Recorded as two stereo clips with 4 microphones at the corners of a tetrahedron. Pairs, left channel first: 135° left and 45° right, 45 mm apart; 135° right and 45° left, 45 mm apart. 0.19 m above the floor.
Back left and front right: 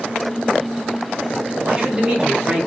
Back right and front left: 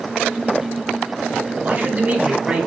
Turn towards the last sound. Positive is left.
turn(degrees=5)